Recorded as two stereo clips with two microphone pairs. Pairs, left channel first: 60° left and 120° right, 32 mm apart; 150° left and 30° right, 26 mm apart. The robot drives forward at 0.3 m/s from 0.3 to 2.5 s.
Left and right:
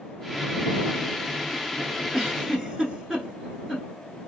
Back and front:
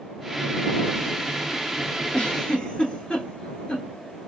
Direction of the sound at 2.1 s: 165° left.